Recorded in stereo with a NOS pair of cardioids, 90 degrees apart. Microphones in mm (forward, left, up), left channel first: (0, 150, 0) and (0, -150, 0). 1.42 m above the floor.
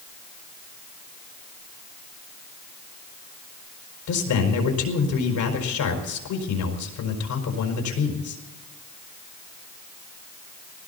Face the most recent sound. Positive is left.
turn(degrees=65)